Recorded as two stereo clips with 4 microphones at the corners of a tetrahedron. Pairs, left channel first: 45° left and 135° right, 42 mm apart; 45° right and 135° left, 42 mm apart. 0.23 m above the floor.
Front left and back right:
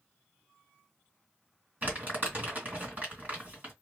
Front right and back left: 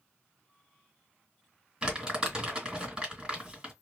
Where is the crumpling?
160° right, 2 m.